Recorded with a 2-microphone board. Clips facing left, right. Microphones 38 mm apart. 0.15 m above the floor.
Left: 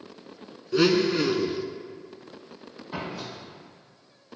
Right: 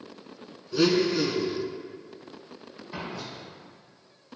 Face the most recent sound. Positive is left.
turn(degrees=50)  # may be behind; listen again after turning